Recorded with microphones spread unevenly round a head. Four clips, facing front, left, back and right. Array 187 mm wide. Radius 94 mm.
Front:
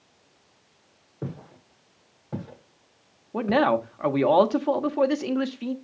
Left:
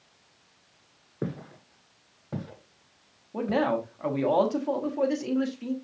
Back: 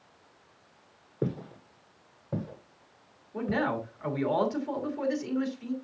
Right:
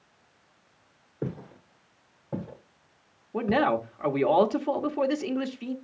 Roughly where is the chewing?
No chewing in this recording.